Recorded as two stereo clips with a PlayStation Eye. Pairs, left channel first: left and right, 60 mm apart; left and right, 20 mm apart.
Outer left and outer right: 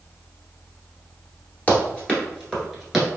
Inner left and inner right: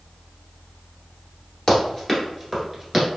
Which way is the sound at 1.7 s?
25° left (ahead or behind).